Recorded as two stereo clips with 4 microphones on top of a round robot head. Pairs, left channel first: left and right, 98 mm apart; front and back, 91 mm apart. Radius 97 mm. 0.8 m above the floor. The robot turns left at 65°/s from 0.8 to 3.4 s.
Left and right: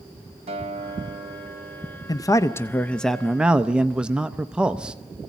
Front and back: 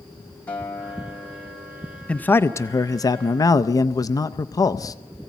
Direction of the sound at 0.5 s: 75° right.